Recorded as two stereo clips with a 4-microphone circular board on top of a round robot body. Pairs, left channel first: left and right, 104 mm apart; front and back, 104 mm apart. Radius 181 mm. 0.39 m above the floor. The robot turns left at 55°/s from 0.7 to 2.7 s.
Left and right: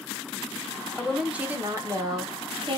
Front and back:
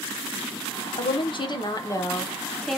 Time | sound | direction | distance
0.9 | a woman speaking | 5° left | 1.3 m